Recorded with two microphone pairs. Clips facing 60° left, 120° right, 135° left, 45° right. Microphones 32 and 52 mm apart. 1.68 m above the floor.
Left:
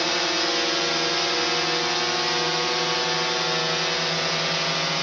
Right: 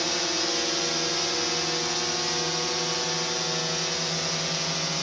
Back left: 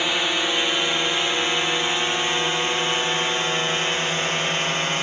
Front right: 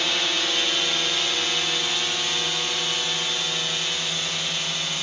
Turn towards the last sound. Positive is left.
turn(degrees=105)